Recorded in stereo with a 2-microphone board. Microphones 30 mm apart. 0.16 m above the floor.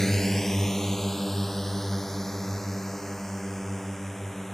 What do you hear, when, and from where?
0.0 s a drone: 15° left (ahead or behind)